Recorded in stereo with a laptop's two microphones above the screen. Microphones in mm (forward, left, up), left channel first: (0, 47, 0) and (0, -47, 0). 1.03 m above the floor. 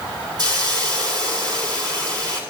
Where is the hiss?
50° right (ahead or behind), 4 m.